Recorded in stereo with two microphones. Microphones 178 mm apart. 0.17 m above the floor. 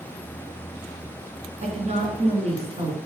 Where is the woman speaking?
40° right (ahead or behind), 2.0 m.